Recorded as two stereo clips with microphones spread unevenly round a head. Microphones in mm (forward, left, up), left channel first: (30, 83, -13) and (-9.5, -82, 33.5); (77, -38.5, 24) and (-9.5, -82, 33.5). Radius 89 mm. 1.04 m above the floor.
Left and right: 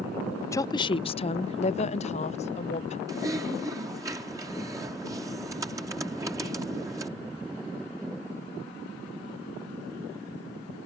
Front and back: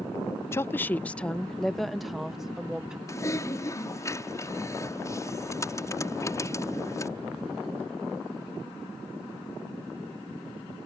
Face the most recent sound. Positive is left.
turn(degrees=-30)